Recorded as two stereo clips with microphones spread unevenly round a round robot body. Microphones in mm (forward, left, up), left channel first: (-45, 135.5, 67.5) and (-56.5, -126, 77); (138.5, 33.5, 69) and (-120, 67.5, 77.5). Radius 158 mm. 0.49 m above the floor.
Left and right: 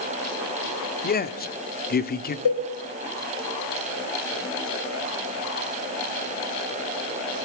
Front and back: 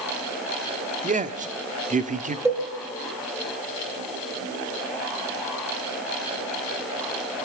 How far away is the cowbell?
About 8.5 m.